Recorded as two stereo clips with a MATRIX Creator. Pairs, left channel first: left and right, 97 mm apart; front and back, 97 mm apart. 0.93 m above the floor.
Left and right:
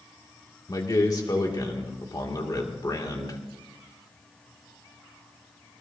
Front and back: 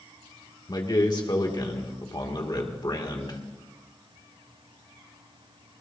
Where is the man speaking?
40° left, 2 m.